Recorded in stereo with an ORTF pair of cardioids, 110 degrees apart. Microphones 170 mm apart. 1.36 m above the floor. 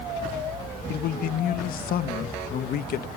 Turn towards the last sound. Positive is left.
turn(degrees=60)